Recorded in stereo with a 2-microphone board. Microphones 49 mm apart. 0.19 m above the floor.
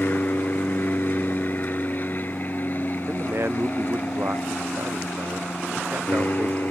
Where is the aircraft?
40° left (ahead or behind); by 6.7 s 35° left (ahead or behind).